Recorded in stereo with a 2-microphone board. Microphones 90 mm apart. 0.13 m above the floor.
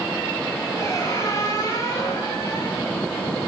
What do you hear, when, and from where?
0.8 s a squeak: 30° left (ahead or behind), 8.5 m